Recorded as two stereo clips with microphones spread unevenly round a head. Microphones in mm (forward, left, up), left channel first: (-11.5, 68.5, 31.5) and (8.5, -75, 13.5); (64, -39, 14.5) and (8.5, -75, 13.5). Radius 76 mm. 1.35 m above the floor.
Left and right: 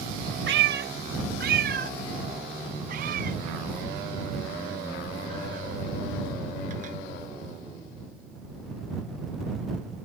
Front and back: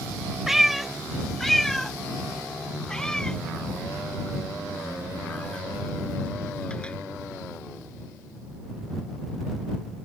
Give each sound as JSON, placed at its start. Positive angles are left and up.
{"t": 0.5, "sound": "a cat meowing", "azimuth_deg": -65}